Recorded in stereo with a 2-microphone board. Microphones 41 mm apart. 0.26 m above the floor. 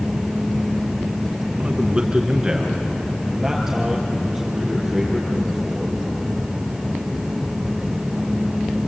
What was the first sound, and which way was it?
A man speaking, 30° right (ahead or behind).